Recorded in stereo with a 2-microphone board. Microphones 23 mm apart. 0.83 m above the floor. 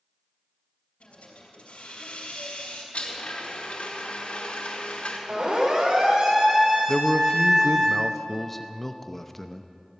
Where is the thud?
No thud in this recording.